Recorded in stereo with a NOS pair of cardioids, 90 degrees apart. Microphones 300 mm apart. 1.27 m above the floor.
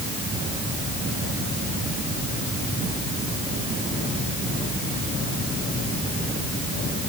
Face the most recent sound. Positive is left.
No sound to turn to.